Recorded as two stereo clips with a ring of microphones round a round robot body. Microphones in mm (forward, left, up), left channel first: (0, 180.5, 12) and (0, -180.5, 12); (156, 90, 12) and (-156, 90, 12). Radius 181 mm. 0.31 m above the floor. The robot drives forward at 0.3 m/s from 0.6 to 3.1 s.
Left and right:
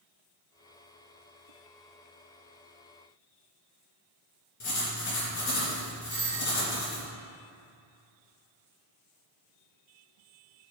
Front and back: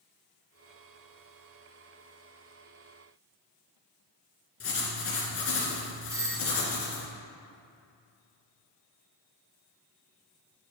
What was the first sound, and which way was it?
Writing, 45° left.